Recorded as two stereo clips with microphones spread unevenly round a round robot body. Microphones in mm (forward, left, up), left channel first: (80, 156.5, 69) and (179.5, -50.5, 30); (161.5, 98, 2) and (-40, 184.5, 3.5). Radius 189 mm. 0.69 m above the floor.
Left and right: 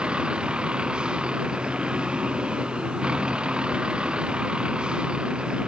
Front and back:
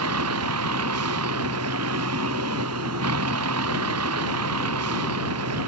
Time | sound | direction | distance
0.0 | a vehicle | 150° right | ?